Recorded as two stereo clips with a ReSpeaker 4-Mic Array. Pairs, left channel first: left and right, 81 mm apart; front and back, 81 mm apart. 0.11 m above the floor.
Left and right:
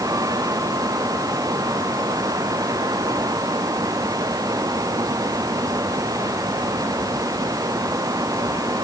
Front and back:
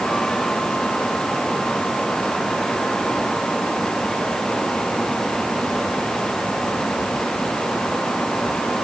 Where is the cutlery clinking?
I don't hear cutlery clinking.